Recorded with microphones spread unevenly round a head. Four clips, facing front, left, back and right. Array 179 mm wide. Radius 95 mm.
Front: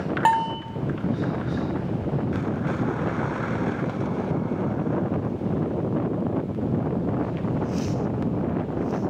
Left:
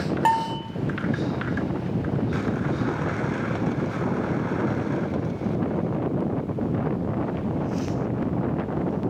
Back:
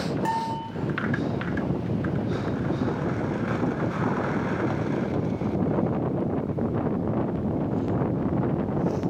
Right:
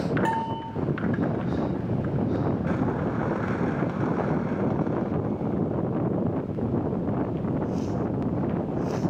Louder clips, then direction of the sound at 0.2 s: Left 5 dB, front 10 dB; 35° left.